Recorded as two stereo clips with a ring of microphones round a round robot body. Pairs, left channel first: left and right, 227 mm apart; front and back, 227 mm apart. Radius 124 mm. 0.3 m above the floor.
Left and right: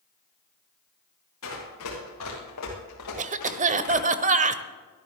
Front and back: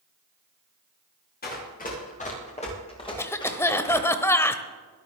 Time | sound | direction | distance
1.4 | running footsteps | 50° left | 8.5 m
3.2 | a cough | 70° right | 1.0 m